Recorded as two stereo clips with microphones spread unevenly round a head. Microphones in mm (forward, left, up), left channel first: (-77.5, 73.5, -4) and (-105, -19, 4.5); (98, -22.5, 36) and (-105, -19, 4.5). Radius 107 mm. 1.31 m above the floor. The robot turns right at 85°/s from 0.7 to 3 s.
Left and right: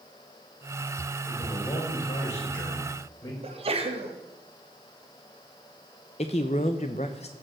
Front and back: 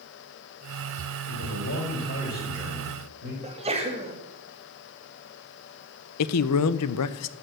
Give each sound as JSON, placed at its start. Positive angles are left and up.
{"t": 1.3, "sound": "a man speaking", "azimuth_deg": -20, "distance_m": 4.5}
{"t": 3.4, "sound": "a sneeze", "azimuth_deg": -120, "distance_m": 2.0}
{"t": 6.2, "sound": "a man speaking", "azimuth_deg": 15, "distance_m": 0.6}